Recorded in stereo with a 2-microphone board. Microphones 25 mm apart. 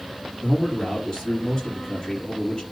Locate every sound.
0.4 s a man speaking: 20° left (ahead or behind), 4 m